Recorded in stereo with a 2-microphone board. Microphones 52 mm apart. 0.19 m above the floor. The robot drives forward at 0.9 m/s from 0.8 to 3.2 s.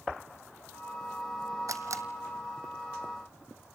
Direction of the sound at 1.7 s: 75° right (ahead or behind).